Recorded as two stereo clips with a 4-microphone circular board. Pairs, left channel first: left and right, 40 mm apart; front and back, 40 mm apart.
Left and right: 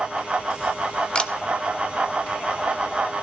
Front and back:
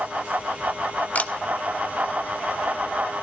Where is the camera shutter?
30° left, 0.7 m.